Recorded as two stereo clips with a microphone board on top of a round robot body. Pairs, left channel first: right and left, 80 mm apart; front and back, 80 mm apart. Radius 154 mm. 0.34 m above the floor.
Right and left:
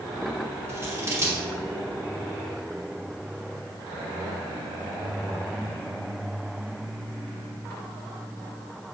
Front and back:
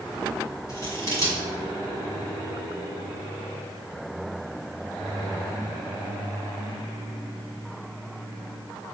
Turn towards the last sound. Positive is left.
turn(degrees=40)